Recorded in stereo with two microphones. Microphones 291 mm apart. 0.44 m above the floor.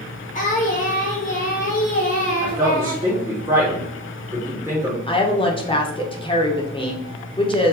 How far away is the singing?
About 1.2 m.